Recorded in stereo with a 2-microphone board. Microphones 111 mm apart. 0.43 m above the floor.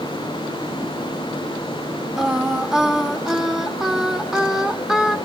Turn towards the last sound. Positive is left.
turn(degrees=-5)  # may be behind; listen again after turning